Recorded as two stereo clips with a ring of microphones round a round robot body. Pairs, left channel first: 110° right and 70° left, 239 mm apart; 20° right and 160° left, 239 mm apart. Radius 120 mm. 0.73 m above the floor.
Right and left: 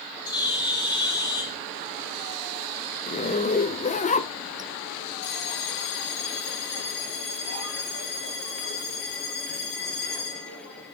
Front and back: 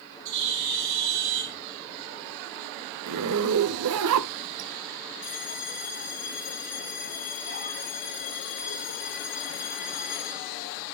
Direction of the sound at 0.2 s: 175° left.